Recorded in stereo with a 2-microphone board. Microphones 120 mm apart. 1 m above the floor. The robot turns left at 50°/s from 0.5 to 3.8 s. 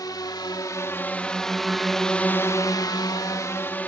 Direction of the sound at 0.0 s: 35° left (ahead or behind).